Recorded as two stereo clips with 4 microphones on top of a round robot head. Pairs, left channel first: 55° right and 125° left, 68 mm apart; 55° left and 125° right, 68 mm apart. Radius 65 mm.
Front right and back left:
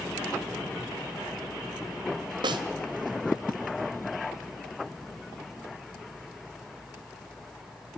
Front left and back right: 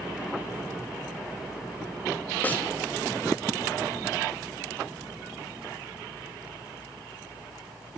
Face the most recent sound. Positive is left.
turn(degrees=125)